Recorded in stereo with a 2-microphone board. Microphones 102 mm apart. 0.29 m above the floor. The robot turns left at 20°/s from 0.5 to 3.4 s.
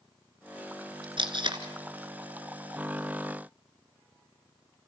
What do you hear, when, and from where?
1.2 s tape being pulled: 55° right (ahead or behind), 1.7 m; by 1.6 s 50° right (ahead or behind), 1.7 m